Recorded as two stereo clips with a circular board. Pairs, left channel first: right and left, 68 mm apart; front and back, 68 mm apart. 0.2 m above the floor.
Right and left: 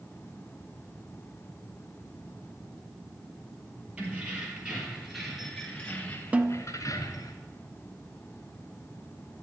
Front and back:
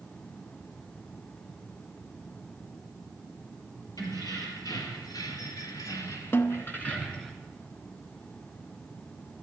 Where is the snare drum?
35° left, 0.6 m.